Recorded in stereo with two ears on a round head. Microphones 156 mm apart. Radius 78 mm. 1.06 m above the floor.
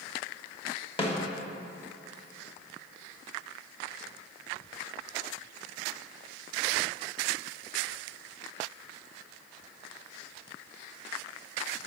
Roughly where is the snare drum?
Left.